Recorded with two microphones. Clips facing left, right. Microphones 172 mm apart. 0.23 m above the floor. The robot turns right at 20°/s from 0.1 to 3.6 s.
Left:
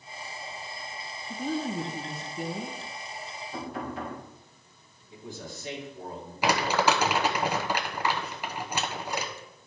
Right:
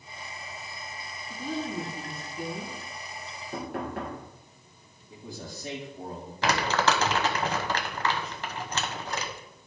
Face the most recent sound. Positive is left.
turn(degrees=10)  # may be behind; listen again after turning